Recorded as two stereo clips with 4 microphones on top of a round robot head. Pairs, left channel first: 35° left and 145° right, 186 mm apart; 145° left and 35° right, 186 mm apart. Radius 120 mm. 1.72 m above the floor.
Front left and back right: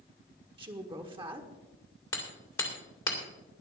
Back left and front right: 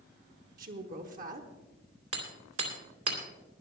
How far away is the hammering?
About 2 m.